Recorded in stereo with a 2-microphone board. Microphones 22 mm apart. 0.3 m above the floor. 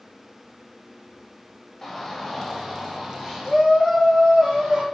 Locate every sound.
1.8 s a shout: 10° left (ahead or behind), 1.1 m; by 4.8 s 25° right (ahead or behind), 1.6 m